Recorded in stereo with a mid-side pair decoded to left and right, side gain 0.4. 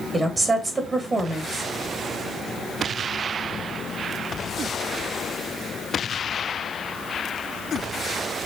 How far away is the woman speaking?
About 1.3 m.